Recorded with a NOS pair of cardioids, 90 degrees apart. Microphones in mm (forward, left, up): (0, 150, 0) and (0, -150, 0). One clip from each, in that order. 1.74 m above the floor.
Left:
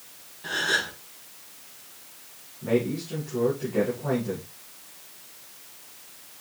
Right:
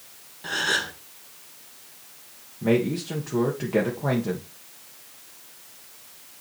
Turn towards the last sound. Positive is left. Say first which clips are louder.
# right 2 dB
turn(degrees=-70)